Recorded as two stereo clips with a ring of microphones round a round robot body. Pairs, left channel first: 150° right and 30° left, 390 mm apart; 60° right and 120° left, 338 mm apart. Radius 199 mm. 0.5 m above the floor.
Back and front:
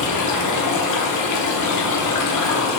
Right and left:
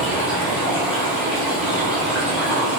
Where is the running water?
155° right, 0.8 m.